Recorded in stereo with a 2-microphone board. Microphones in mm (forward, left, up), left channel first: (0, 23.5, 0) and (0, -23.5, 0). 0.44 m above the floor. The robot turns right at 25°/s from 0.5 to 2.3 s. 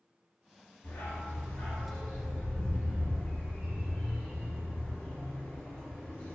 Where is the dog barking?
55° left (ahead or behind), 1.7 m; by 6.3 s 15° left (ahead or behind), 1.7 m.